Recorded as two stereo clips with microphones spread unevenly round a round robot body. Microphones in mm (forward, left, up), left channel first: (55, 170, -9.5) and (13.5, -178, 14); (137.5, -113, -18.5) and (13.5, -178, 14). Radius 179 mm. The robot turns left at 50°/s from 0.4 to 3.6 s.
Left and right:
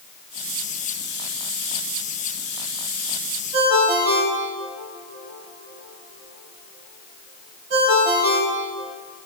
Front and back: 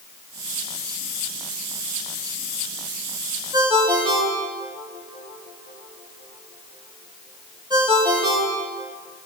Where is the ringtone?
90° right, 4.5 m; by 8.9 s 95° right, 4.5 m.